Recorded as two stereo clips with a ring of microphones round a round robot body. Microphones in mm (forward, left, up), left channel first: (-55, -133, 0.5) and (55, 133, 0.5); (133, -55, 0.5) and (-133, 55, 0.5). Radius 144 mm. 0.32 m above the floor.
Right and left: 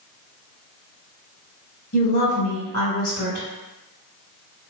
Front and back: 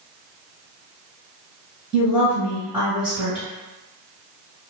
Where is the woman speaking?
120° right, 0.9 m.